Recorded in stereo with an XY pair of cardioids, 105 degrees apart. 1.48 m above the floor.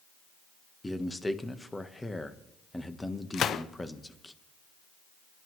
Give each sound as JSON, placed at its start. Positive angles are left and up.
{"t": 0.8, "sound": "a man speaking", "azimuth_deg": 15, "distance_m": 1.3}
{"t": 3.3, "sound": "a gunshot", "azimuth_deg": 60, "distance_m": 0.7}